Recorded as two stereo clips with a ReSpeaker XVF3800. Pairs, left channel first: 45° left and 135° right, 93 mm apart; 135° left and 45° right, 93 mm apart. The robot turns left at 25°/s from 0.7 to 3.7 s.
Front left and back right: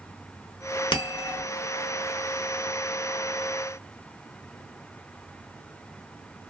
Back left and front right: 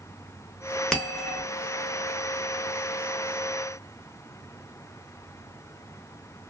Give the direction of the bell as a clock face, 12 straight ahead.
10 o'clock.